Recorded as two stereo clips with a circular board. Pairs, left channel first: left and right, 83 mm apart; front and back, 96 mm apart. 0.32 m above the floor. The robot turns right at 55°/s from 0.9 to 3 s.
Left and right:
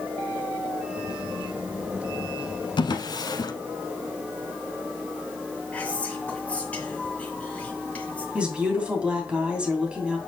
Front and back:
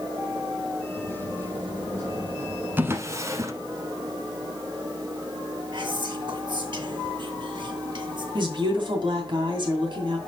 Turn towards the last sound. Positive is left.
turn(degrees=-165)